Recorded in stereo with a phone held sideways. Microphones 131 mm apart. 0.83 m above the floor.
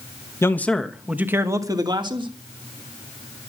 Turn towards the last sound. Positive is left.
turn(degrees=-40)  # may be behind; listen again after turning